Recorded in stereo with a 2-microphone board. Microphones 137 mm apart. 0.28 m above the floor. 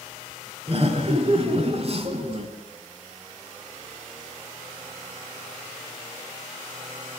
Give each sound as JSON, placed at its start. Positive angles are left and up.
{"t": 0.7, "sound": "laughter", "side_deg": -45, "distance_m": 3.5}